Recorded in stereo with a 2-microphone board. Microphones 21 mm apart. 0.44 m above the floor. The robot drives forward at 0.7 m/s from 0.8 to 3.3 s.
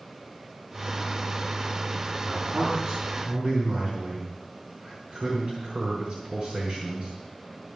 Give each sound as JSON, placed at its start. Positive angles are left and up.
{"t": 2.2, "sound": "a man speaking", "side_deg": -75, "distance_m": 5.0}